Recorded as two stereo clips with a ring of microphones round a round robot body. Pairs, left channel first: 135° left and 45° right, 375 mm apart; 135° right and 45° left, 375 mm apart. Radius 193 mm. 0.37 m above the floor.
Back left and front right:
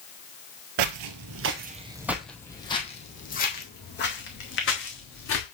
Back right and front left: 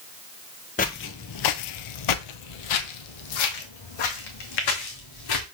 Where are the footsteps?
65° right, 0.7 m; by 5.5 s 170° right, 2.5 m.